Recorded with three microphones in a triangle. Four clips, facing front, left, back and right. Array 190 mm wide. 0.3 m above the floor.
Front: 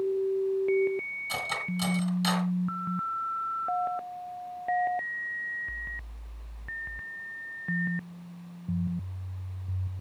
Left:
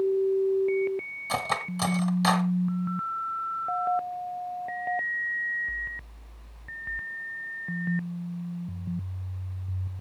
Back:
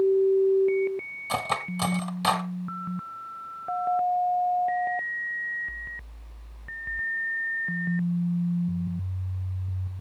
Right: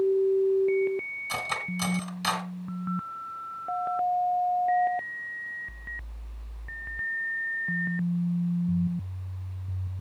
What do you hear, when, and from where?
1.3 s cutlery clinking: 150° left, 1.5 m